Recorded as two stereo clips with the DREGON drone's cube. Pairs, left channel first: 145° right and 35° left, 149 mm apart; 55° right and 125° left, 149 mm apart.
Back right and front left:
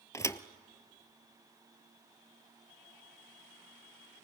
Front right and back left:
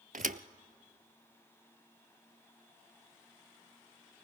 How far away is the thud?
About 0.7 m.